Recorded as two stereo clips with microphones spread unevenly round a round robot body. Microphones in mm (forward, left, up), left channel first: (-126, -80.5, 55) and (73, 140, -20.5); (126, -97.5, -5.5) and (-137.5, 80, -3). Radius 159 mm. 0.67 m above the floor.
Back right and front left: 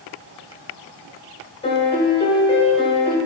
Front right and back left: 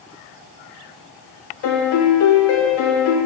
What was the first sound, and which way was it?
A piano, 50° right.